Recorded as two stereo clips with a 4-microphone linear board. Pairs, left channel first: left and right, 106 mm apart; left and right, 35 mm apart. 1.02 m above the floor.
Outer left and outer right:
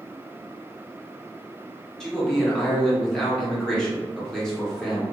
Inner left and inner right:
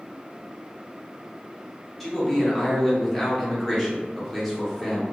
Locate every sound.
2.0 s a man speaking: 5° left (ahead or behind), 1.0 m